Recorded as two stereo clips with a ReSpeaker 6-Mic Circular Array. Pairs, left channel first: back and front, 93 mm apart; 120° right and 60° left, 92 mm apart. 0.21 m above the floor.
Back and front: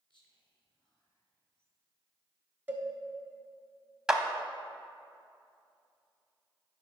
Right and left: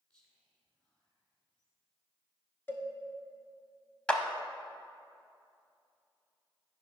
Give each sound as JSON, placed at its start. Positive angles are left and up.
{"t": 0.1, "sound": "whispering", "azimuth_deg": 160, "distance_m": 3.0}
{"t": 2.7, "sound": "a cowbell", "azimuth_deg": -65, "distance_m": 1.1}
{"t": 4.1, "sound": "a clap", "azimuth_deg": -65, "distance_m": 0.8}